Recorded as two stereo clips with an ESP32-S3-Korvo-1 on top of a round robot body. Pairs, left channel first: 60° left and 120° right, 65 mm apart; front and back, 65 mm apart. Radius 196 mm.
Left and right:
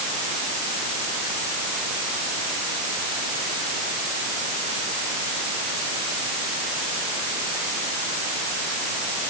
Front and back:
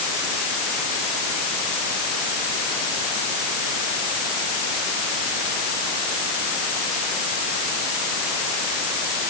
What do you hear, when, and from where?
Only background noise.